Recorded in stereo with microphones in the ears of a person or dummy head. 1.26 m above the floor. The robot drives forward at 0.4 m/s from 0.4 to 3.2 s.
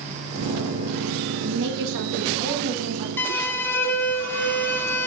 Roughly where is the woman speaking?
Right.